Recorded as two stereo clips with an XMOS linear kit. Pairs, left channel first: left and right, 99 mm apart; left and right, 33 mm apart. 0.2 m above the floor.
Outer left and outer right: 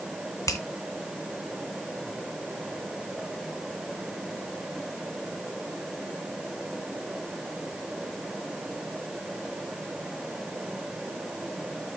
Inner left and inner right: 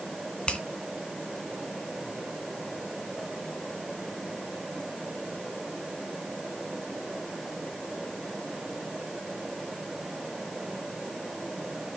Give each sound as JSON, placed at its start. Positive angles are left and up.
{"t": 0.5, "sound": "a finger snap", "side_deg": 35, "distance_m": 1.7}